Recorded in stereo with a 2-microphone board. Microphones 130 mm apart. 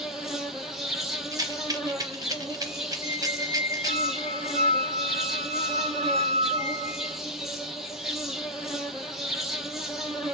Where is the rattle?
30° right (ahead or behind), 0.8 m.